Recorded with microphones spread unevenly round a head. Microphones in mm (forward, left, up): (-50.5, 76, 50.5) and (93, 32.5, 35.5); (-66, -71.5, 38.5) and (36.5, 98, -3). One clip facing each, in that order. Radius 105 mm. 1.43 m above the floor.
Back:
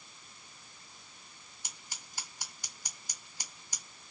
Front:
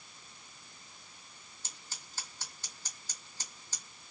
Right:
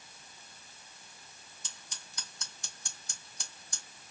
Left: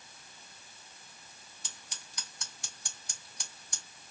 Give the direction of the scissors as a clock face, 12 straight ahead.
9 o'clock.